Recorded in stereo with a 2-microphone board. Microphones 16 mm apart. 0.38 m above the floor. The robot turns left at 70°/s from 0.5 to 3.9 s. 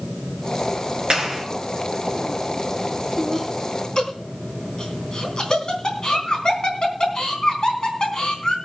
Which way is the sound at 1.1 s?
65° right (ahead or behind).